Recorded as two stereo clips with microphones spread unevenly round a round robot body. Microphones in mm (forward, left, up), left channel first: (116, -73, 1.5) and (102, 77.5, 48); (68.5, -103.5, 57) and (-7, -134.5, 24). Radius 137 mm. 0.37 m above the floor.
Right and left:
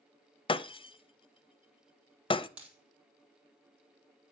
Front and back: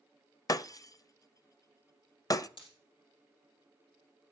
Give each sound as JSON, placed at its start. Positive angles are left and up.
{"t": 0.5, "sound": "breaking glass", "azimuth_deg": -35, "distance_m": 0.8}
{"t": 2.6, "sound": "a dropped coin", "azimuth_deg": 15, "distance_m": 4.5}